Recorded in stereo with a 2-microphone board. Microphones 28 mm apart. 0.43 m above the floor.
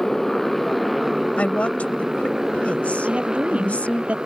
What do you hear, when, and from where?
0.0 s a motorcycle: 5° left (ahead or behind); by 4.3 s 30° right (ahead or behind)
1.4 s a woman speaking: 55° left (ahead or behind)
3.0 s a woman speaking: 45° right (ahead or behind)